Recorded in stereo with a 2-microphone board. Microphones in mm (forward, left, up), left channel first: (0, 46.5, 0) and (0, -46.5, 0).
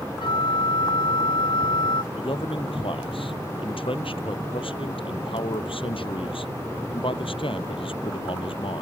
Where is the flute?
65° left (ahead or behind).